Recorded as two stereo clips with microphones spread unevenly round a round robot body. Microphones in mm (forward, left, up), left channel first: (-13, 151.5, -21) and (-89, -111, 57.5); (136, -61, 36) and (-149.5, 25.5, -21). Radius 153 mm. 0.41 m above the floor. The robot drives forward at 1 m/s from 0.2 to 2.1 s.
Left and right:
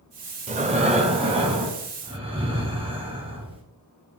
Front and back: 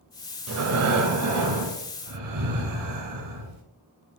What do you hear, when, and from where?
0.5 s breathing: 175° right, 0.8 m; by 3.6 s straight behind, 2.5 m